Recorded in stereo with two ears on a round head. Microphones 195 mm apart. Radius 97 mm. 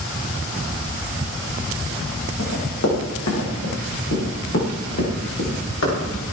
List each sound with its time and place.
2.4 s running footsteps: 75° left (ahead or behind), 9.5 m; by 6.2 s 65° left (ahead or behind), 10.5 m